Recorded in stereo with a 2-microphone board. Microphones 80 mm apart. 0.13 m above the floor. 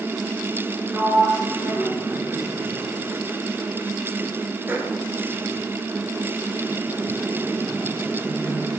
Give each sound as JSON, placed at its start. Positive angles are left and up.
{"t": 0.9, "sound": "a sliding door", "side_deg": -25, "distance_m": 1.5}